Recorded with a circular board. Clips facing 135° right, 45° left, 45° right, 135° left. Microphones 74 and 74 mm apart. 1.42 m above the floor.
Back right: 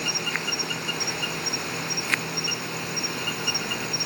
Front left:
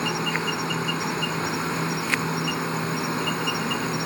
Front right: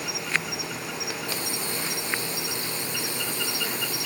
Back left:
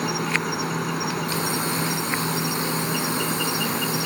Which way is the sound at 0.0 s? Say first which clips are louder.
Front left 4 dB, back left 6 dB; 100° left.